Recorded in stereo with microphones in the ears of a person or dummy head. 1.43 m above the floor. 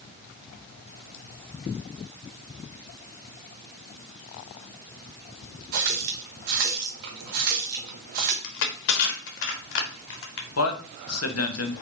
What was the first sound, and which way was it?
A running tap, 50° right (ahead or behind).